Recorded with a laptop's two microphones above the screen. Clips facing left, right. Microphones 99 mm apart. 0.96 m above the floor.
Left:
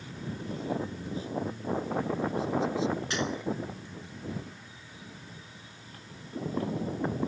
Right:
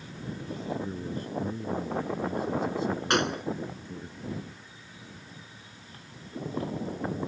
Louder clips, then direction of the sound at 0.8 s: Right 1 dB; 55° right (ahead or behind).